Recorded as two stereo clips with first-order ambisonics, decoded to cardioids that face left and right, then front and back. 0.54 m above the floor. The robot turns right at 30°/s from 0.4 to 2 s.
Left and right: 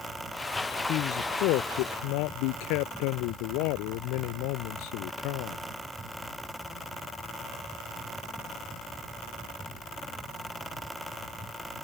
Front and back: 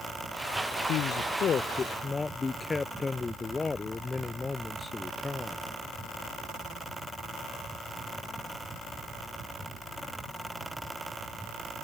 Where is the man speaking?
45° left; by 5.6 s 75° left.